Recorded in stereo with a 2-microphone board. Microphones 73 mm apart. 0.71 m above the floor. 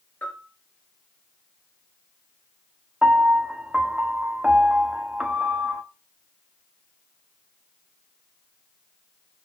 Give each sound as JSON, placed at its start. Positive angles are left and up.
{"t": 0.2, "sound": "a bell", "side_deg": 25, "distance_m": 2.5}
{"t": 3.0, "sound": "a piano", "side_deg": -15, "distance_m": 1.0}